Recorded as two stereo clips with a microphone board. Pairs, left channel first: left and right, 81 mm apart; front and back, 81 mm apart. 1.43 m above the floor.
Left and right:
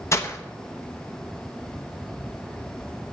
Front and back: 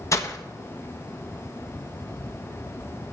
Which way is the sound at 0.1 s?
40° left.